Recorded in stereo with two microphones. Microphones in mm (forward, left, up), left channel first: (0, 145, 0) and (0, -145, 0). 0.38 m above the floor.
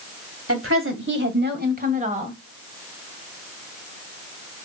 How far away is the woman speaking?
About 2 m.